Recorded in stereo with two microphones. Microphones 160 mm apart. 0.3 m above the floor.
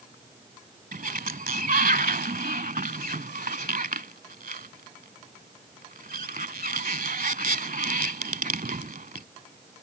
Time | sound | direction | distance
0.9 | a sliding door | 70° right (ahead or behind) | ?